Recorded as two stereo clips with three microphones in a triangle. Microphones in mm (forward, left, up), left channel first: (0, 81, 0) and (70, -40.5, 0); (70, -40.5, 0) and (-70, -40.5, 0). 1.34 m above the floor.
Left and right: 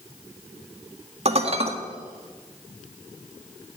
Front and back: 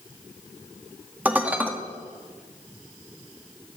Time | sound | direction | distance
1.2 | dishes clattering | 100° right | 1.6 m